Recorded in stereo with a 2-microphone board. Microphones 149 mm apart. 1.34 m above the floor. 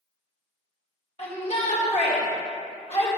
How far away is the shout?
About 1.5 m.